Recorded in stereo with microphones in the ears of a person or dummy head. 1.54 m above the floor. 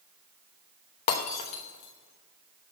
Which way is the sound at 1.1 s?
35° left (ahead or behind).